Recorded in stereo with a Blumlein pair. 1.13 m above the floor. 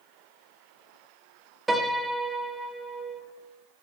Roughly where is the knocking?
No knocking in this recording.